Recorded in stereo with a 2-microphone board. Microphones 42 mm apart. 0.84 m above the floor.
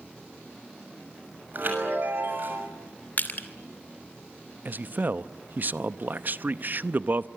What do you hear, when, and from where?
1.5 s a chime: 50° right (ahead or behind), 6.5 m
3.2 s crushing: 45° left (ahead or behind), 2.5 m
4.7 s a man speaking: 45° right (ahead or behind), 0.7 m